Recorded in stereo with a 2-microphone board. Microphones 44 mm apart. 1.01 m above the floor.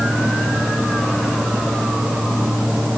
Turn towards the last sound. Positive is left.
No sound to turn to.